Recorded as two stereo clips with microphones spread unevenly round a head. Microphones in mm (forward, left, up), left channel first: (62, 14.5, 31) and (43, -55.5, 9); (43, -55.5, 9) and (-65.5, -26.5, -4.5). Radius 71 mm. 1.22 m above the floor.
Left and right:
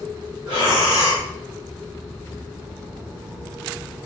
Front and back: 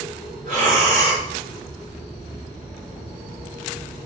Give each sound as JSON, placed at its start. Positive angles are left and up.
{"t": 0.5, "sound": "breathing", "azimuth_deg": 150, "distance_m": 1.5}